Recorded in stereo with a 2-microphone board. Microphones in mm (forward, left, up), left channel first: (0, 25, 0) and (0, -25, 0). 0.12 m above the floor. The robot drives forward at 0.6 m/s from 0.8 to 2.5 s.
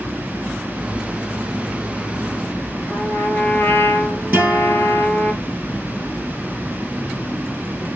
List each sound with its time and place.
2.9 s a trumpet: 40° left (ahead or behind), 0.5 m
4.3 s a guitar: 30° right (ahead or behind), 1.4 m